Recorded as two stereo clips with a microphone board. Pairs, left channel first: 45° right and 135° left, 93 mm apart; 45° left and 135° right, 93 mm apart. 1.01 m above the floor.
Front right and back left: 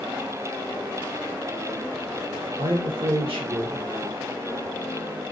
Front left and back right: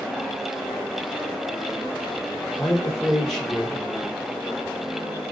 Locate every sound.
2.6 s a man speaking: 135° left, 0.9 m